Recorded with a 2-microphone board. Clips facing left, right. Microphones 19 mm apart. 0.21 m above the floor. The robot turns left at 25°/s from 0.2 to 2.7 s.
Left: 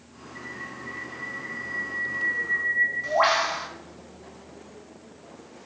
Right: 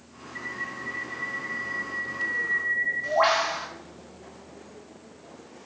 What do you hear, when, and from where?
0.3 s a bird: 145° right, 0.7 m; by 3.7 s 155° left, 0.7 m